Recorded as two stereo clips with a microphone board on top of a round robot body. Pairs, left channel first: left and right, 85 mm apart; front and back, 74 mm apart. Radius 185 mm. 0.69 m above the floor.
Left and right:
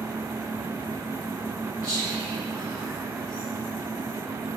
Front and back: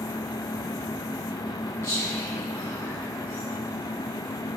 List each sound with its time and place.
1.8 s whispering: 45° left, 2.5 m